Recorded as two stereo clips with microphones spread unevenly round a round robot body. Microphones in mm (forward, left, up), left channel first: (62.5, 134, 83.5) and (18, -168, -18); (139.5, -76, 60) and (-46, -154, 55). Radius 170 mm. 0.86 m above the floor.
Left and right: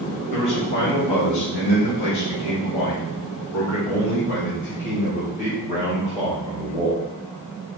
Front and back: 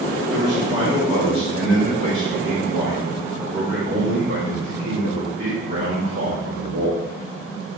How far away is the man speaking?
About 3.5 m.